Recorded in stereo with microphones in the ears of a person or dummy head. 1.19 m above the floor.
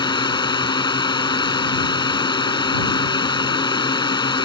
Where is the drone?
25° left (ahead or behind).